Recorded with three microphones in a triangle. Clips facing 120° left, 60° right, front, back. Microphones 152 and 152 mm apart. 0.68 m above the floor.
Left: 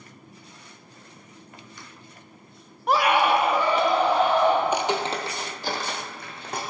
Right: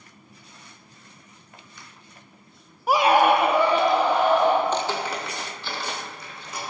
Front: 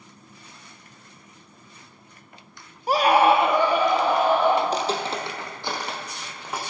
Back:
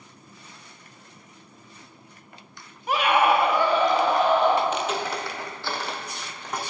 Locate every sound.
2.9 s a scream: 25° left, 0.6 m; by 4.5 s 85° right, 2.5 m
4.6 s footsteps: 40° left, 1.0 m; by 6.6 s 85° left, 2.5 m